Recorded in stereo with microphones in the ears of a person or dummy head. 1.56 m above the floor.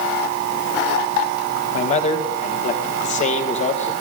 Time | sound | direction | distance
1.7 | a man speaking | 35° left (ahead or behind) | 1.9 m